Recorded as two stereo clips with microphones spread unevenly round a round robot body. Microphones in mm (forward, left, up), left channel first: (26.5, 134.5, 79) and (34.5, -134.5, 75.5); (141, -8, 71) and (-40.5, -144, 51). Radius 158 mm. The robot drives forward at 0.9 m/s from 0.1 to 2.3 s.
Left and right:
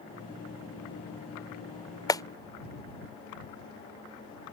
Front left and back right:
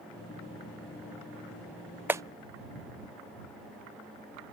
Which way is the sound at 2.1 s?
155° left.